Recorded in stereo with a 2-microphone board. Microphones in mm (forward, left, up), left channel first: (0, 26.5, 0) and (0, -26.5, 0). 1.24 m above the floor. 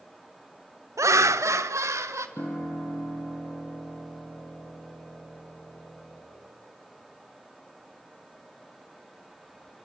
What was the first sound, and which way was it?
Laughter, 75° right (ahead or behind).